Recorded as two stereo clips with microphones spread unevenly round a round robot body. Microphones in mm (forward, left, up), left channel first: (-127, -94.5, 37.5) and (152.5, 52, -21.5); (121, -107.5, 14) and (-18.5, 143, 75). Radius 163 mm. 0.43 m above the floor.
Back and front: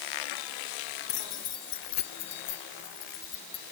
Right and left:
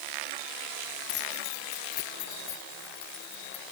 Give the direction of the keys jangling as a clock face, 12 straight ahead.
3 o'clock.